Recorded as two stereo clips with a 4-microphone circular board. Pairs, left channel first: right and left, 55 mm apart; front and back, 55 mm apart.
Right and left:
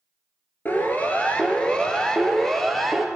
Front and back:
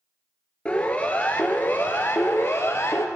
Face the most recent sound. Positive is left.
turn(degrees=-5)